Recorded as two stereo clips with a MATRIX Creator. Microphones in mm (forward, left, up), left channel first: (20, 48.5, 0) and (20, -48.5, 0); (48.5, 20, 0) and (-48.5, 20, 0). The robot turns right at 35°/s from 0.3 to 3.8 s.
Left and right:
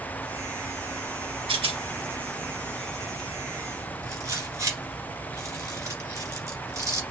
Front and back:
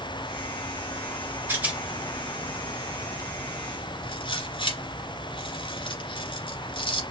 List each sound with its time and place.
1.5 s a rattle: 110° right, 1.6 m; by 7.0 s 30° right, 1.6 m